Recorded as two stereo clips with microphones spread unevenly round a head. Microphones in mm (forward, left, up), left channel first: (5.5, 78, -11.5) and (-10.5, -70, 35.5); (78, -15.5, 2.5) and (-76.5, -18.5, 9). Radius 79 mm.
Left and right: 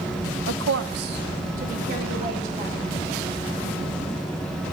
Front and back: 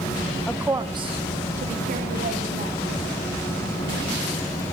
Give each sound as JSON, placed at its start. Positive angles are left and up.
{"t": 0.5, "sound": "a woman speaking", "azimuth_deg": -80, "distance_m": 0.8}